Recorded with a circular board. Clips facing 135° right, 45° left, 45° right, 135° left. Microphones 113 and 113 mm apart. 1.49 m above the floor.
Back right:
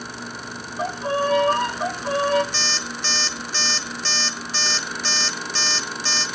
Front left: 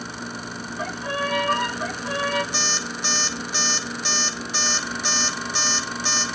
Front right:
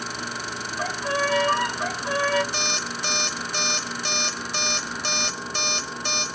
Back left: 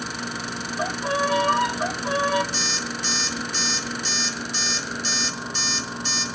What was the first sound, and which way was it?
A violin, 165° right.